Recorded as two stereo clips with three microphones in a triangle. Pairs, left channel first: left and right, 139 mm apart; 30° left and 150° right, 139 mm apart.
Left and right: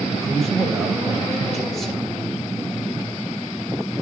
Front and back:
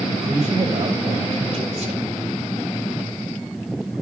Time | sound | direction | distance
0.2 | a man speaking | straight behind | 1.5 m